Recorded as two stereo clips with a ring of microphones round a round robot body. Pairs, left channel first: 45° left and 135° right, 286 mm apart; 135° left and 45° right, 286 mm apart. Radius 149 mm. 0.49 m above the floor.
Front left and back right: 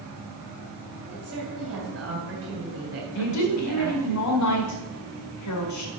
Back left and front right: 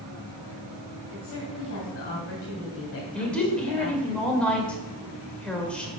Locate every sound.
1.1 s a woman speaking: 175° left, 3 m
3.1 s a woman speaking: 50° left, 2.0 m